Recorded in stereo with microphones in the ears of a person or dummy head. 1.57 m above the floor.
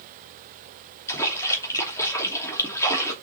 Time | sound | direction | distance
1.1 | a splash | 20° left (ahead or behind) | 2.5 m